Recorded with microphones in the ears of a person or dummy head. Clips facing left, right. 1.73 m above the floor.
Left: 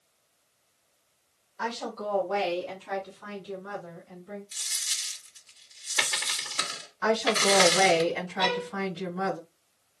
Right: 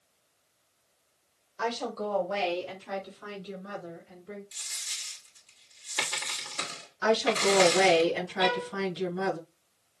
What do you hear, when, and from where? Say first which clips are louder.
1.6 s a woman speaking: right 2 dB; 45° right (ahead or behind), 1.7 m; by 4.4 s 35° right (ahead or behind), 6 m
4.5 s a dropped coin: left 2 dB; 5° right (ahead or behind), 2.5 m
7.0 s a woman speaking: even; 50° right (ahead or behind), 4.5 m
8.4 s a violin: right 1 dB; 5° right (ahead or behind), 1.0 m